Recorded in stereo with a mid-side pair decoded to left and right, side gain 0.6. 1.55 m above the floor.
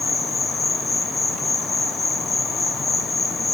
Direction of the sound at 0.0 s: 20° left.